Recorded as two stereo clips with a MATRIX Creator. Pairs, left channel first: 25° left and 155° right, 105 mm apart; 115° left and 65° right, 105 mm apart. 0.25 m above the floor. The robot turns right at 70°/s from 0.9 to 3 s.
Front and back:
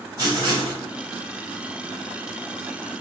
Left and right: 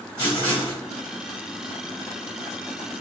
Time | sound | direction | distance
0.2 | writing | 125° right | 2.0 m